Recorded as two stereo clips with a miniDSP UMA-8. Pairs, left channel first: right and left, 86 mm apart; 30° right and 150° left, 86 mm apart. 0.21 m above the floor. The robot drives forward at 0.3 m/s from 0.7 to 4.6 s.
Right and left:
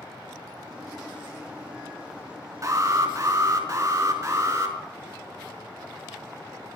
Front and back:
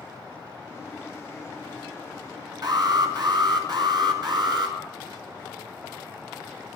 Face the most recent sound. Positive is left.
turn(degrees=140)